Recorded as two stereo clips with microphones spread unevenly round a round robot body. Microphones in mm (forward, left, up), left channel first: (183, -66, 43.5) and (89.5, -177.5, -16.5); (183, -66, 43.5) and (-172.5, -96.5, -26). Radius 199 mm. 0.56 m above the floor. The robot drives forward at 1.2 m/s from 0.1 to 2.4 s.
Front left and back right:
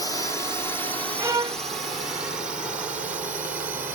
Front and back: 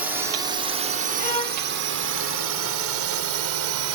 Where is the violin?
65° right; by 1.6 s 75° right.